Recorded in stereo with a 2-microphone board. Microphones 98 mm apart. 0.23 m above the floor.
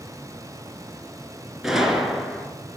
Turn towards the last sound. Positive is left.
turn(degrees=-5)  # may be behind; listen again after turning